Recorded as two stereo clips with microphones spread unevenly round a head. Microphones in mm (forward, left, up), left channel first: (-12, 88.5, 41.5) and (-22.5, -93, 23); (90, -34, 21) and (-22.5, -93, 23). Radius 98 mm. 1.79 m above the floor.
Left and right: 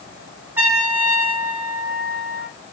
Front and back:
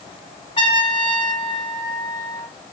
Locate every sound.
0.6 s a trumpet: 10° right, 1.8 m